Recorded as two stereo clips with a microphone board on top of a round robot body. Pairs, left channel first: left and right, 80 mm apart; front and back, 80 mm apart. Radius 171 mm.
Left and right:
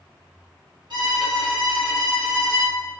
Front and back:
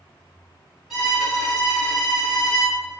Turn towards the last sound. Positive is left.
turn(degrees=-90)